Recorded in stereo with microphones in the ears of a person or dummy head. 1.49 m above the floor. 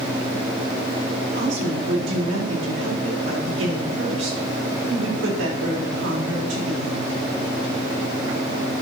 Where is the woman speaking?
65° right (ahead or behind), 3.5 m.